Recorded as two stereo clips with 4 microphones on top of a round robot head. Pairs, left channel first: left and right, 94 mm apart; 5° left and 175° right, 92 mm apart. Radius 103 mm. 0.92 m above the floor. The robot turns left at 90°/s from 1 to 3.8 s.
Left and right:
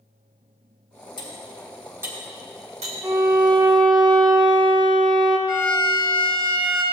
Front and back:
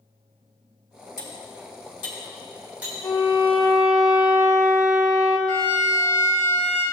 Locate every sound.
1.2 s cutlery clinking: 50° left, 2 m; by 2.9 s 110° right, 2 m
3.0 s a violin: 25° right, 1.0 m; by 5.4 s 95° right, 1.0 m
5.5 s a violin: 45° left, 2.5 m